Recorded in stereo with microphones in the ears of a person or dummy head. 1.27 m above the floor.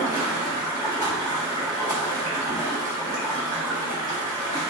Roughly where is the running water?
Centre.